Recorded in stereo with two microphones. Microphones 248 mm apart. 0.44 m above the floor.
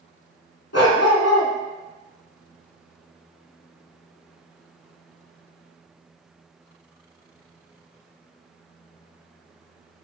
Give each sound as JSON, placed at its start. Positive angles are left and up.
{"t": 0.7, "sound": "a dog barking", "side_deg": 70, "distance_m": 0.9}